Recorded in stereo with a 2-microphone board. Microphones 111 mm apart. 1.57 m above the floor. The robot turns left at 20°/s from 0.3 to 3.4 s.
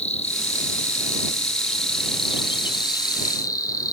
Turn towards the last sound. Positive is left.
turn(degrees=35)